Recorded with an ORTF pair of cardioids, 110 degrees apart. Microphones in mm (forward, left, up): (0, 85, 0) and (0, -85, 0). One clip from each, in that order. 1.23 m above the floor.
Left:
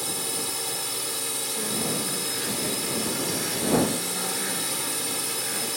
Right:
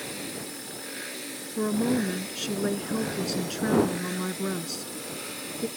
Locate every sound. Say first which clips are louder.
0.0 s a drone: left 6 dB; 65° left
1.6 s a woman speaking: right 5 dB; 55° right